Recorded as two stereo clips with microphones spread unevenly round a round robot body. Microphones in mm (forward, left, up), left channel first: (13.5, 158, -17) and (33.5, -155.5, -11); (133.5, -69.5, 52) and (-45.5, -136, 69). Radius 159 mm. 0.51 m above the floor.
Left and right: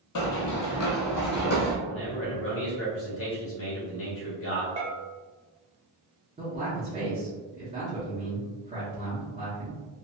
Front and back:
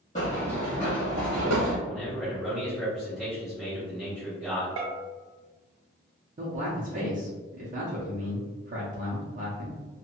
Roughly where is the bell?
Behind.